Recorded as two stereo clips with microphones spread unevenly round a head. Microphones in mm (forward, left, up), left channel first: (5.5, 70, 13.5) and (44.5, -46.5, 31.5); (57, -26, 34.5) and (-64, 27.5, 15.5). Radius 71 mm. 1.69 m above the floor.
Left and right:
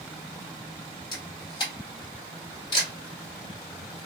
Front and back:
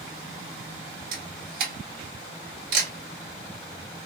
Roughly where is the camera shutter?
Behind.